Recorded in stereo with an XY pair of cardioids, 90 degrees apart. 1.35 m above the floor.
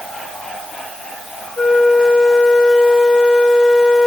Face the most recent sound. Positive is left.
turn(degrees=40)